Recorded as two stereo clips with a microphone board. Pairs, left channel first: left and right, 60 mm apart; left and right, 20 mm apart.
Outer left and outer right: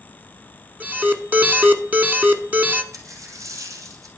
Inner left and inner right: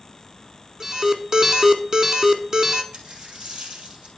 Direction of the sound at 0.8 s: 35° right (ahead or behind).